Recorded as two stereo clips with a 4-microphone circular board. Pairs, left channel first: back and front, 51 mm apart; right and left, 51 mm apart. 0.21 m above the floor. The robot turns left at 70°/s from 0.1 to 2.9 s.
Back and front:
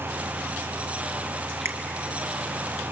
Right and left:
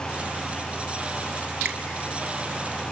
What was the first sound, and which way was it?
A finger snap, 35° left.